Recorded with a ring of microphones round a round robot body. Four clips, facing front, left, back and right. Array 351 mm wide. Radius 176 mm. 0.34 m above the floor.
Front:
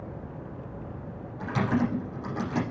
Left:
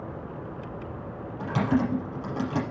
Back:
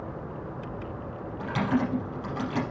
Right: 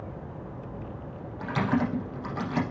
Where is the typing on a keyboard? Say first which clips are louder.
Left 2 dB, even; 75° left, 6 m.